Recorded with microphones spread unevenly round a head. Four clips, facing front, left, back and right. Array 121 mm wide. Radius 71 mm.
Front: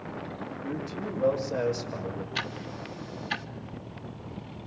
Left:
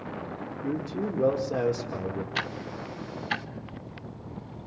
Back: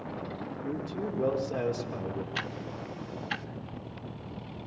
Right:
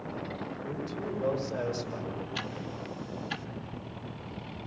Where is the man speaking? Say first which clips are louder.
Left 8 dB, even; 95° left, 5 m; by 2.2 s 105° left, 5 m.